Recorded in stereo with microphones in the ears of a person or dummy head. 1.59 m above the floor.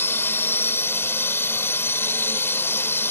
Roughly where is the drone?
Centre.